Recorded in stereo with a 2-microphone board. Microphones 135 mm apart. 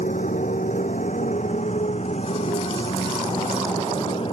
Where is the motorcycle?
70° left (ahead or behind); by 4.3 s 45° left (ahead or behind).